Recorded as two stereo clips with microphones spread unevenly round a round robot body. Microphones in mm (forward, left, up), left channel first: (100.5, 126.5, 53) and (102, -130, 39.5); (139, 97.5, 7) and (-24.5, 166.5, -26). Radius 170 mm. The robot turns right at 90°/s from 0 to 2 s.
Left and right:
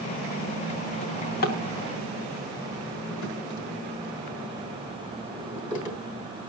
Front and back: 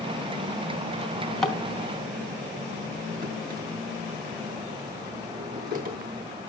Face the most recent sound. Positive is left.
turn(degrees=120)